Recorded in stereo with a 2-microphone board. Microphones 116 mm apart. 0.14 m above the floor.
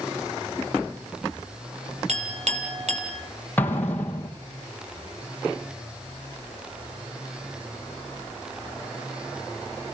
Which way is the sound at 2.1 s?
65° right (ahead or behind).